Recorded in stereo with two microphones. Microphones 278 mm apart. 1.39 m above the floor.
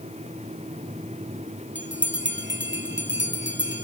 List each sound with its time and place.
1.8 s a bell: 45° right (ahead or behind), 0.7 m